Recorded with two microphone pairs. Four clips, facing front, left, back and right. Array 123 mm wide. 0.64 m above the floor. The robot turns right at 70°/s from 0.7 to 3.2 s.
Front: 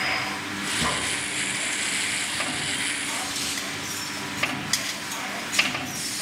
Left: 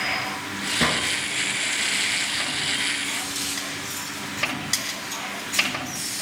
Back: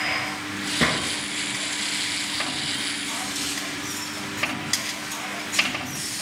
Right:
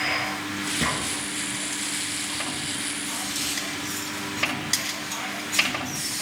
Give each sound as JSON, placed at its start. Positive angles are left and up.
{"t": 0.8, "sound": "a gunshot", "azimuth_deg": 145, "distance_m": 1.9}